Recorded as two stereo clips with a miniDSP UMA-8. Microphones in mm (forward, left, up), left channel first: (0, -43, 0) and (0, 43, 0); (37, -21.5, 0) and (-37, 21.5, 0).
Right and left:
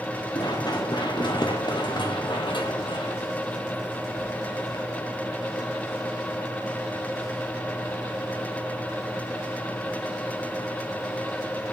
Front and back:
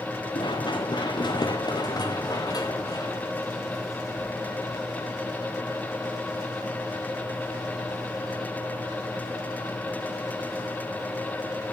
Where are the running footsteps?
55° right, 3 m; by 4.8 s 85° right, 4.5 m.